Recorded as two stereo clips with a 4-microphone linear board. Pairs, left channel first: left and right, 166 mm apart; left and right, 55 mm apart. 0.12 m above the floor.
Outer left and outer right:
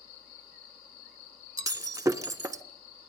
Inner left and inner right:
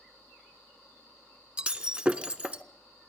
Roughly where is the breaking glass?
Right.